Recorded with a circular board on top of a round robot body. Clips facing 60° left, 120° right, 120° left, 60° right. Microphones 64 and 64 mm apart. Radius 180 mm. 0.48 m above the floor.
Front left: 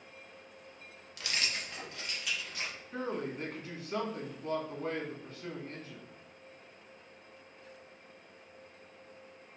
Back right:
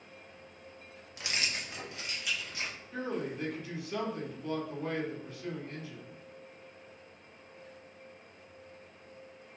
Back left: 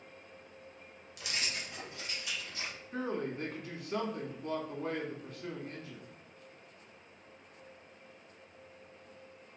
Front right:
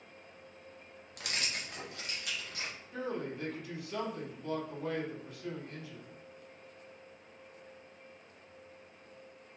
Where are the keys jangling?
60° right, 0.7 m; by 2.8 s 35° right, 1.4 m.